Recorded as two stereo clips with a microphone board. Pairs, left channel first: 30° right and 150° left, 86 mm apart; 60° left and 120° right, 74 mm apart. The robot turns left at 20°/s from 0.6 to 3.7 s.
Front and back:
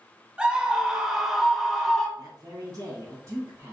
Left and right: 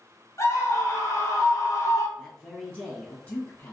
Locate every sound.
0.4 s a scream: 80° left, 1.4 m; by 2.1 s 50° left, 1.4 m
2.2 s a man speaking: 140° left, 1.9 m; by 3.7 s 105° left, 1.9 m